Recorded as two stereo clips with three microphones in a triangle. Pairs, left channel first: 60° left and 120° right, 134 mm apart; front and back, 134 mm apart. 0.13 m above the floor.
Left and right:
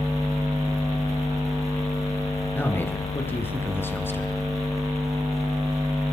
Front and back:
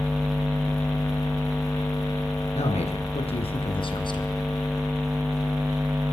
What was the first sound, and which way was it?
A man speaking, 10° right.